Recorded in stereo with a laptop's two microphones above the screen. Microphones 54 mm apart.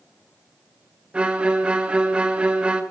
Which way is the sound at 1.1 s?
20° right (ahead or behind).